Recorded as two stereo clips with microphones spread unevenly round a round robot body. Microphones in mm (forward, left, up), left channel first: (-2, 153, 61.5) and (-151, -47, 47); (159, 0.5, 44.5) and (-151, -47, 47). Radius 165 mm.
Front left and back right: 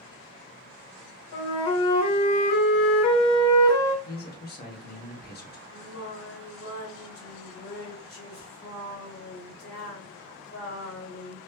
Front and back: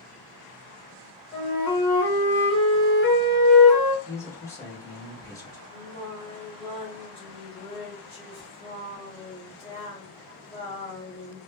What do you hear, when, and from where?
1.3 s a flute: 65° left, 0.9 m
4.0 s a man speaking: 85° left, 1.1 m
5.7 s singing: 80° left, 1.4 m